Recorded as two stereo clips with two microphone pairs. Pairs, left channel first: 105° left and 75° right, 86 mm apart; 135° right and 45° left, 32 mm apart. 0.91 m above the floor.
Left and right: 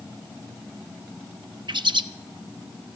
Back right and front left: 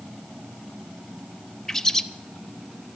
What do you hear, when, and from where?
1.7 s a bird: 55° right, 0.6 m